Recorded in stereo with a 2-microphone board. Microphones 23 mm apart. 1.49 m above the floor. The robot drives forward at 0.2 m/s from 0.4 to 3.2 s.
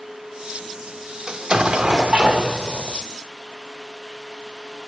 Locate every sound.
1.3 s an explosion: 40° right (ahead or behind), 0.9 m